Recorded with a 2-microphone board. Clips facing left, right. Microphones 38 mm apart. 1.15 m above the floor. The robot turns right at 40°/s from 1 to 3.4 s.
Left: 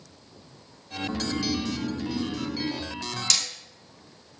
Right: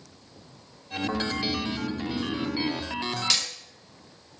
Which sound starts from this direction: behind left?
Snoring, at 1.1 s.